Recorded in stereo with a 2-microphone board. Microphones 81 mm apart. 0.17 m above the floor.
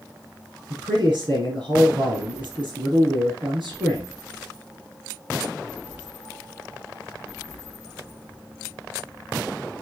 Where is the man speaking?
70° right (ahead or behind), 4 m.